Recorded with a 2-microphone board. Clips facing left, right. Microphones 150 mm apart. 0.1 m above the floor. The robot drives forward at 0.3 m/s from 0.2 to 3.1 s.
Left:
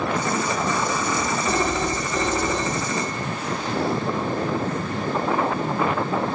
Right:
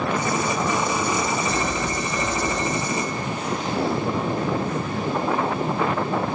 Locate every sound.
1.5 s a phone ringing: 15° left (ahead or behind), 8.5 m